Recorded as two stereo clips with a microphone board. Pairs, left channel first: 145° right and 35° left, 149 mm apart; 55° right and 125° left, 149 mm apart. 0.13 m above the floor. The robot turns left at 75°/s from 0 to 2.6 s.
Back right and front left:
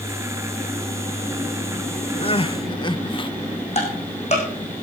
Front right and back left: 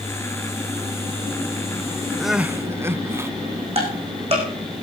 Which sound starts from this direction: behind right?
Crying, at 2.2 s.